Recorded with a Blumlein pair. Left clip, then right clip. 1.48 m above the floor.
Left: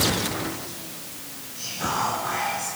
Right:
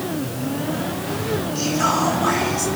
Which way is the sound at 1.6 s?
50° right.